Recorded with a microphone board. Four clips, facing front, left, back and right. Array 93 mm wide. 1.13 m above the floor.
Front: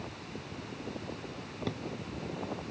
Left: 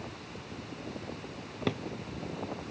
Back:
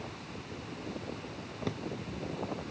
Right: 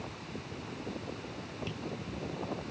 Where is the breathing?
No breathing in this recording.